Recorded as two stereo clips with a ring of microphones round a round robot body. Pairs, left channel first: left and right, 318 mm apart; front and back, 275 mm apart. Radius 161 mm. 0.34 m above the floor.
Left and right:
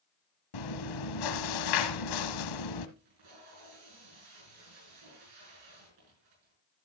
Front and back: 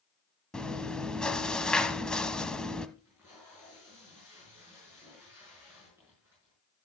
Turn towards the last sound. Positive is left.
turn(degrees=-95)